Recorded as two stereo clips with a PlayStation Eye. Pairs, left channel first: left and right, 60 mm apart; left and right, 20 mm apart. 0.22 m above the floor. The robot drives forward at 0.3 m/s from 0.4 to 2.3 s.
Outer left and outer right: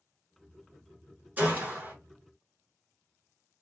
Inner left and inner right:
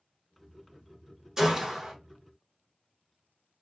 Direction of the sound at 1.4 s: 35° right (ahead or behind).